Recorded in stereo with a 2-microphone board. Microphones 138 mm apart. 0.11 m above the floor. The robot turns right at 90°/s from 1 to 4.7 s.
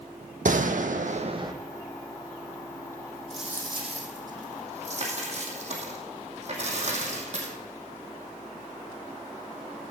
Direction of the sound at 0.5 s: 75° right.